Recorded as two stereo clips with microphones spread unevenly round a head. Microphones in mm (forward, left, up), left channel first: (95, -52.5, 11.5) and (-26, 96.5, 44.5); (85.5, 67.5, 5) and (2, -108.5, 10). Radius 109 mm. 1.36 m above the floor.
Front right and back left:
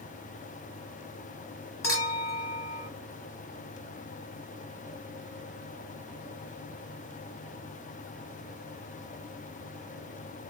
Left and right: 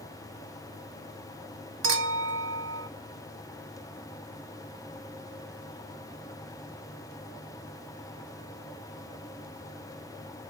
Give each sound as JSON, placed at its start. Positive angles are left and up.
{"t": 1.8, "sound": "a clink", "azimuth_deg": -130, "distance_m": 1.4}